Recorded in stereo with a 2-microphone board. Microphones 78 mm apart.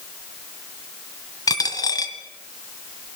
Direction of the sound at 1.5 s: 50° left (ahead or behind).